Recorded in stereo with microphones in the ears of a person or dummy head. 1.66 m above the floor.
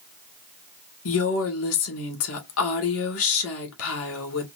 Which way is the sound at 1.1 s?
75° left (ahead or behind).